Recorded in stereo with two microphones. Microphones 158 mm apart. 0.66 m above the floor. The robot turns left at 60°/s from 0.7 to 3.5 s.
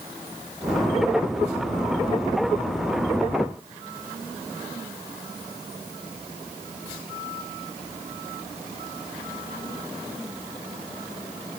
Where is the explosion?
I don't hear an explosion.